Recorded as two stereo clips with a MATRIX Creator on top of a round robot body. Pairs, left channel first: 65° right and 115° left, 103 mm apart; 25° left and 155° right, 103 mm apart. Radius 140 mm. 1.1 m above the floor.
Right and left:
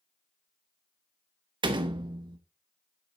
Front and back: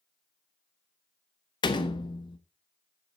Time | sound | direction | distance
1.6 | a door slam | 70° left | 1.1 m